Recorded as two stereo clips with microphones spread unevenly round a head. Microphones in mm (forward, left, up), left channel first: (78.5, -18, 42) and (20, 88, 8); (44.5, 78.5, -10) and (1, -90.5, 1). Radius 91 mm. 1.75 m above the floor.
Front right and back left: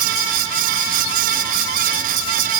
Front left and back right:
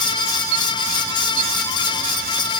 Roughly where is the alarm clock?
No alarm clock in this recording.